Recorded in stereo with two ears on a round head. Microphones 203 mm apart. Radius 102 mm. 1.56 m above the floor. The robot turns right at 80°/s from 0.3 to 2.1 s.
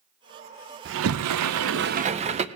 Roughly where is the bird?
No bird in this recording.